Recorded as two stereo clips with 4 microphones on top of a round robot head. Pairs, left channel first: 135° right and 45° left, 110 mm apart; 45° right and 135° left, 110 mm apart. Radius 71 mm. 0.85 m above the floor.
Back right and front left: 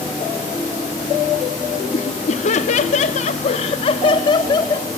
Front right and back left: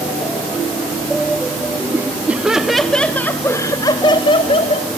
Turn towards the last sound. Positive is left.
turn(degrees=-75)